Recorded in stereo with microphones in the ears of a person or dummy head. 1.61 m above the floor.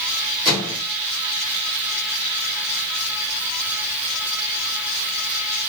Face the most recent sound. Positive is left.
turn(degrees=-25)  # may be behind; listen again after turning